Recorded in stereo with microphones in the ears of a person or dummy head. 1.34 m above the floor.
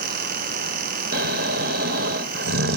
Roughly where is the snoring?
Right.